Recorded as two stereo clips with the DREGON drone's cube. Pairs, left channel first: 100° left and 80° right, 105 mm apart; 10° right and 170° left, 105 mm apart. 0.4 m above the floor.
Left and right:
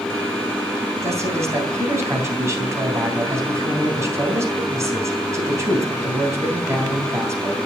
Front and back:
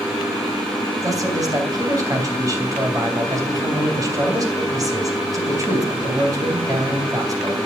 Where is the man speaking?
140° right, 3 m.